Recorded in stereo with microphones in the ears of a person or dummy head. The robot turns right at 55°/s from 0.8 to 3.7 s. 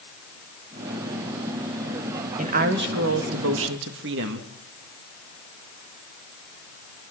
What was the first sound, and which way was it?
A woman speaking, 145° right.